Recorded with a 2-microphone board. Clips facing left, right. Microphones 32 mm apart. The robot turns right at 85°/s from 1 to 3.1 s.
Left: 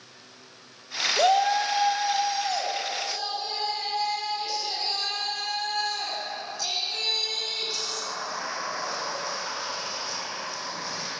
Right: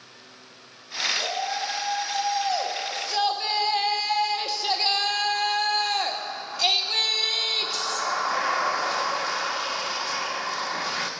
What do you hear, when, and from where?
1.2 s a shout: 80° left, 1.5 m; by 11.1 s 115° right, 1.5 m